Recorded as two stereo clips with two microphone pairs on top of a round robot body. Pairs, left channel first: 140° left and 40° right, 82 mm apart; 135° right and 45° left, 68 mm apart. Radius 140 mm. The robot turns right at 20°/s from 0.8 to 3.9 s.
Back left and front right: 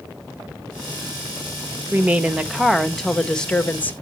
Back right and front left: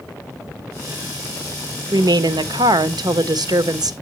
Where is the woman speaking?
30° left, 0.7 m; by 3.9 s 70° left, 0.7 m.